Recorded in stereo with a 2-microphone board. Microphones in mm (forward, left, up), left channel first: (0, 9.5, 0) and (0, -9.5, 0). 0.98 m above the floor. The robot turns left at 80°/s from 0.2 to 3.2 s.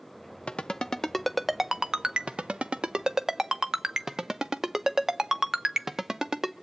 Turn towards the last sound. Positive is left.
turn(degrees=-35)  # may be behind; listen again after turning